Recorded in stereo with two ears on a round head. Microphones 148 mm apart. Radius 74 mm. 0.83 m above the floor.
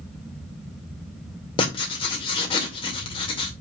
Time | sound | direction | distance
1.6 | writing | 30° left (ahead or behind) | 2 m